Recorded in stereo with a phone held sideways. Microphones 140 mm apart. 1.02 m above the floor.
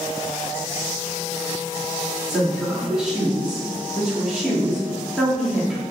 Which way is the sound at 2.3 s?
5° right (ahead or behind).